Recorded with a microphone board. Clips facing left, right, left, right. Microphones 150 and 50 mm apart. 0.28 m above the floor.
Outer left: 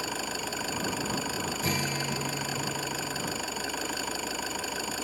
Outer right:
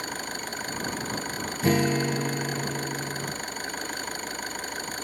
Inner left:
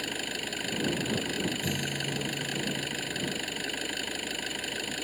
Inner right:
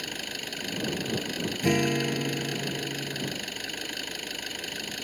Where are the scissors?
No scissors in this recording.